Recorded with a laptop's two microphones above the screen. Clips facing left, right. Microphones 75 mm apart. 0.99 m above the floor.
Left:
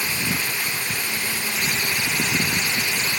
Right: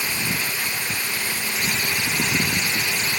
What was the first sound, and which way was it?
Only background noise.